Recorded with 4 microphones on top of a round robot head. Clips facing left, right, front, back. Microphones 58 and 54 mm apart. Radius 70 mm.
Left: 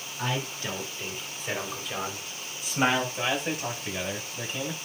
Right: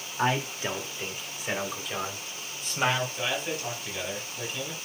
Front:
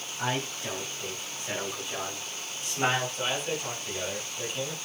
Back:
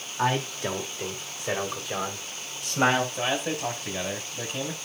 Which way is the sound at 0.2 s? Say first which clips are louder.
Right 5 dB, back 6 dB; 145° right.